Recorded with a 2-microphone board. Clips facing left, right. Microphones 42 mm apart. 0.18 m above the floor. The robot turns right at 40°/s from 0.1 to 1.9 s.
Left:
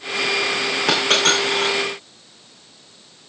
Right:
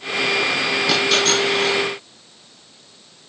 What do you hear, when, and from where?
0.9 s a dropped coin: 85° left, 7 m; by 1.7 s 60° left (ahead or behind), 7 m